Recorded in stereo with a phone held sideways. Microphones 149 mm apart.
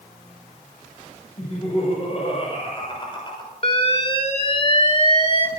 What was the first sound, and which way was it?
Laughter, 50° left (ahead or behind).